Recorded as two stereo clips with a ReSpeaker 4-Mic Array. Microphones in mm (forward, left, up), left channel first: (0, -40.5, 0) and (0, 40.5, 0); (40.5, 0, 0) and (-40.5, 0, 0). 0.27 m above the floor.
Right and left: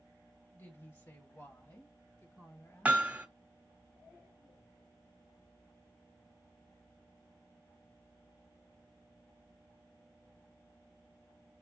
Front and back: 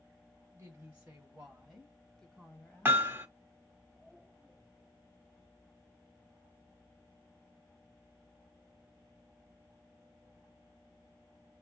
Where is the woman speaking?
130° right, 1.5 m; by 3.0 s 50° right, 1.4 m.